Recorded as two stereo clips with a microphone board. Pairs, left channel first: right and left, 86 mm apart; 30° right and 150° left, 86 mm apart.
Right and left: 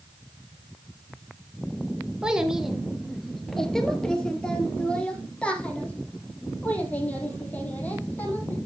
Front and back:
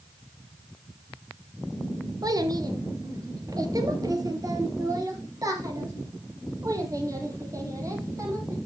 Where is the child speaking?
170° left, 1.6 m; by 8.6 s 160° right, 5 m.